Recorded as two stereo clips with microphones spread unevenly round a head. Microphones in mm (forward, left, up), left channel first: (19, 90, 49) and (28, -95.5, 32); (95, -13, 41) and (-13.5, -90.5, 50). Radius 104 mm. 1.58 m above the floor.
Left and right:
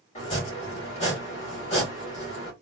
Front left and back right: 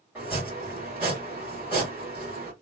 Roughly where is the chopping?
Behind left.